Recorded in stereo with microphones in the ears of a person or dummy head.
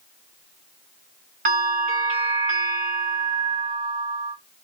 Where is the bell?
50° right (ahead or behind), 1.6 m.